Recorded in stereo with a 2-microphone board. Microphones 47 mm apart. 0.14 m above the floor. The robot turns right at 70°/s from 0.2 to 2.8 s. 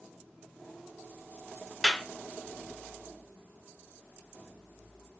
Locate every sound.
1.8 s a clap: centre (ahead or behind), 1.5 m; by 2.0 s 10° left (ahead or behind), 1.5 m